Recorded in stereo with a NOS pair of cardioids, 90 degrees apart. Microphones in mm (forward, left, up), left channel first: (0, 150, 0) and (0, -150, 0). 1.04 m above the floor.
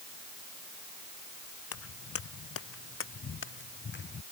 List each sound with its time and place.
1.7 s footsteps: 55° left; by 4.2 s 35° left